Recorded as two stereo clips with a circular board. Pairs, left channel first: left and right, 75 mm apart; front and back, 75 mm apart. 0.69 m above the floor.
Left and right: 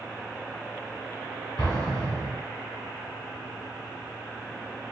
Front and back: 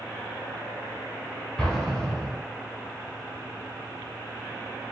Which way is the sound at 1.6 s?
85° left.